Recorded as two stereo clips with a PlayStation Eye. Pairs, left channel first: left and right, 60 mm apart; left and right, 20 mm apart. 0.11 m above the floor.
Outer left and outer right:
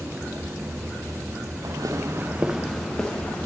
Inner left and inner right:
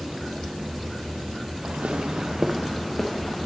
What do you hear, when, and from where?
1.6 s footsteps: 85° right, 0.8 m; by 3.5 s 25° left (ahead or behind), 1.4 m